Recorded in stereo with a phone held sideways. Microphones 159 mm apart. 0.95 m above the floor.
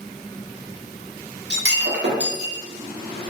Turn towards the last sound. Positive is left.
turn(degrees=-85)